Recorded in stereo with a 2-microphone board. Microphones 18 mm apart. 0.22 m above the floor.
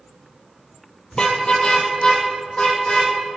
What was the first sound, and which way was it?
A car horn, 45° left (ahead or behind).